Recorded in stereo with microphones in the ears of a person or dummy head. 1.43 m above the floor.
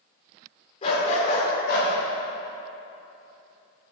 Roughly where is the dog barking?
Left.